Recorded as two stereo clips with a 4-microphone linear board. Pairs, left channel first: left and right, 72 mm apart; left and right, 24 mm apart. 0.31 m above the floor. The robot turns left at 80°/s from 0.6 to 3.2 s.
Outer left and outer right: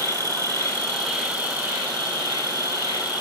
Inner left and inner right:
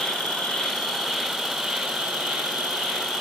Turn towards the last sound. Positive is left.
turn(degrees=-165)